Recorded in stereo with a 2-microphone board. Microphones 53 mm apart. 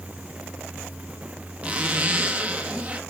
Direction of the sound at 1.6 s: 30° right (ahead or behind).